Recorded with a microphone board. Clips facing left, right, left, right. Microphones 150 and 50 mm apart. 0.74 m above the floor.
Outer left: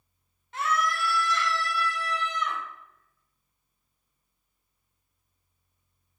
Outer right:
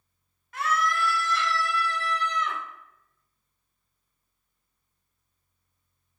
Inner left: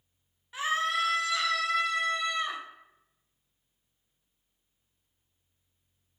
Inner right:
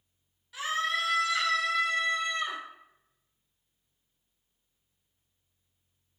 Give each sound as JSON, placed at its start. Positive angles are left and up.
{"t": 0.5, "sound": "a scream", "side_deg": 25, "distance_m": 0.7}